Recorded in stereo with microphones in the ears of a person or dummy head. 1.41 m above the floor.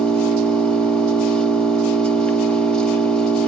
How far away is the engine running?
About 1.6 m.